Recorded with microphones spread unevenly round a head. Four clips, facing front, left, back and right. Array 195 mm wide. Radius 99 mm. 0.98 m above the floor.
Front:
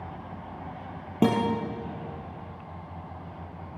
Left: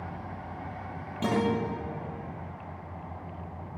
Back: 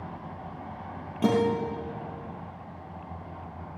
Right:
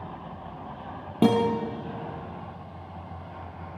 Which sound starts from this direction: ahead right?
A guitar, at 1.2 s.